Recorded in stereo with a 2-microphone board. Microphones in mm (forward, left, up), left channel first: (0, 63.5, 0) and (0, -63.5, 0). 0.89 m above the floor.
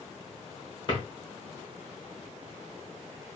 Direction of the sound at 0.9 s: 35° left (ahead or behind).